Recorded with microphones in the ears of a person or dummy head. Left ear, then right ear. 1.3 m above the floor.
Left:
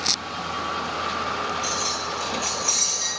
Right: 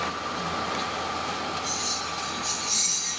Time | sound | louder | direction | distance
1.6 | keys jangling | left 3 dB | 35° left (ahead or behind) | 1.1 m